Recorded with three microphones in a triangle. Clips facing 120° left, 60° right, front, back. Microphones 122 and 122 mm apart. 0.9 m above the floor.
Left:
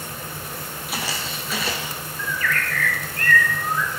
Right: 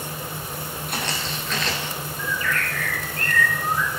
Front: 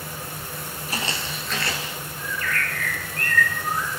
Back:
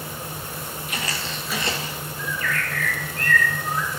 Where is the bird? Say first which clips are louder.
Left 1 dB, back 1 dB; straight ahead, 1.1 m.